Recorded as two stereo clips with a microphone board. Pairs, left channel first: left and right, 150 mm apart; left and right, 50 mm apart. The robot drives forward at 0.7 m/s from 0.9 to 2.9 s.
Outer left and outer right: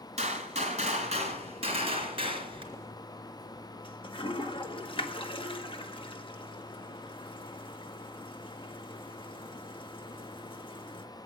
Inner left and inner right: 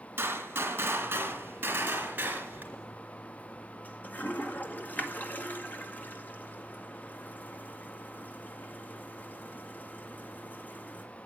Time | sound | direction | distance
0.2 | a gunshot | 45° right (ahead or behind) | 2.5 m
2.7 | a toilet flushing | 30° left (ahead or behind) | 1.3 m